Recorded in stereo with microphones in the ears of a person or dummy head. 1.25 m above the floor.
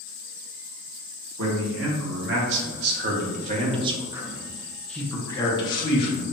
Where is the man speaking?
70° right (ahead or behind), 1.8 m; by 6.2 s 35° left (ahead or behind), 1.5 m.